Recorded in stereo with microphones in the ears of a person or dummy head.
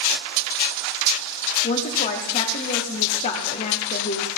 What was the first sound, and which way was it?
A woman speaking, 35° left (ahead or behind).